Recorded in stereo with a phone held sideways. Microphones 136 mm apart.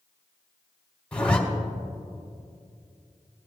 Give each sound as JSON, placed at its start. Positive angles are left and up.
{"t": 1.1, "sound": "a zipper", "side_deg": 10, "distance_m": 1.3}